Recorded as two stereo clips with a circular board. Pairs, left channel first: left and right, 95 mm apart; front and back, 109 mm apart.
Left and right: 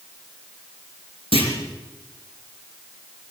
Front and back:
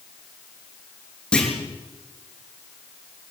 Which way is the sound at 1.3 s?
80° left.